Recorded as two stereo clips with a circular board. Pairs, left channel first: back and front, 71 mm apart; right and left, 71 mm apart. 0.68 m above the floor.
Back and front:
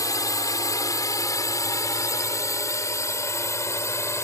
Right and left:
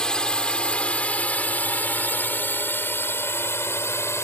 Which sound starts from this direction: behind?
A drone, at 0.0 s.